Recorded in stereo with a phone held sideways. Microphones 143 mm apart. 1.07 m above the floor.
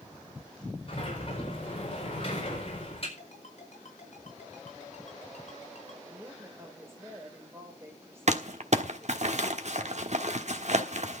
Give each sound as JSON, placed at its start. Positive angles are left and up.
{"t": 0.9, "sound": "a sliding door", "side_deg": 45, "distance_m": 4.5}
{"t": 3.2, "sound": "a ringtone", "side_deg": 60, "distance_m": 4.5}
{"t": 6.0, "sound": "a woman speaking", "side_deg": -20, "distance_m": 4.0}
{"t": 8.3, "sound": "crumpling", "side_deg": -60, "distance_m": 1.3}